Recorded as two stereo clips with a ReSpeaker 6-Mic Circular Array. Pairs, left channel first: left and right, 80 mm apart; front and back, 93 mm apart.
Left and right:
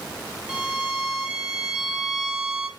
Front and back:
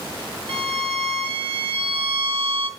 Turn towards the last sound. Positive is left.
turn(degrees=-170)